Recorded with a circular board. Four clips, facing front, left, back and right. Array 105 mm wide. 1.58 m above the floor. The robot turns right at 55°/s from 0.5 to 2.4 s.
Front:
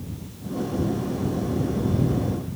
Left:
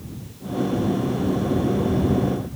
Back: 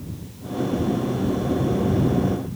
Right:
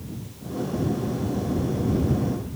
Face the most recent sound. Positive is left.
No sound to turn to.